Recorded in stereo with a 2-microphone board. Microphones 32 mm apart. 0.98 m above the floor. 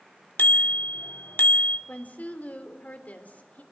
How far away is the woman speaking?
About 3 m.